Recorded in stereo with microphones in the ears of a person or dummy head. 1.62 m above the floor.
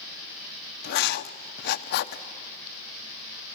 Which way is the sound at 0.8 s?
65° left (ahead or behind).